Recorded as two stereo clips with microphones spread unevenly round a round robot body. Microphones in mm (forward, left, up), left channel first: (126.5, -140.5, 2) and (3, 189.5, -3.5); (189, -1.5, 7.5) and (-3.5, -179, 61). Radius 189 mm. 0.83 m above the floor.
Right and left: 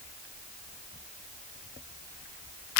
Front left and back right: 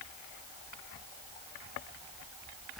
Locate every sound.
Only background noise.